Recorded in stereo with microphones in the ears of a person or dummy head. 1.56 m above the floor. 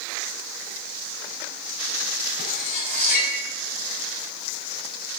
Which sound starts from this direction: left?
Cutlery clinking, at 2.4 s.